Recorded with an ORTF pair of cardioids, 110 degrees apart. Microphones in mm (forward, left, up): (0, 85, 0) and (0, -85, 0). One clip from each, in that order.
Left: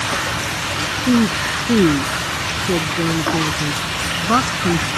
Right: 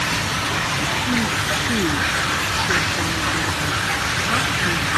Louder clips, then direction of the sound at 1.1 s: Left 2 dB; 50° left.